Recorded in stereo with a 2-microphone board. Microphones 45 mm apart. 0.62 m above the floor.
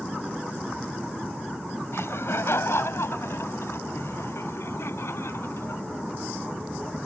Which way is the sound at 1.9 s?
65° left (ahead or behind).